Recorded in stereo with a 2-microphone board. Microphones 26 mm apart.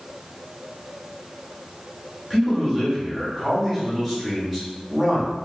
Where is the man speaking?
5° left (ahead or behind), 1.7 m.